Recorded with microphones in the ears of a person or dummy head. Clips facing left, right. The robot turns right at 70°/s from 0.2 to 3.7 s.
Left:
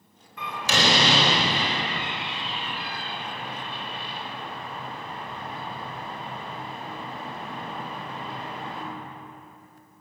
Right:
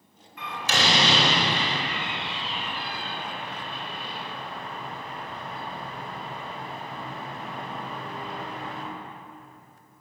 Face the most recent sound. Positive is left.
turn(degrees=-40)  # may be behind; listen again after turning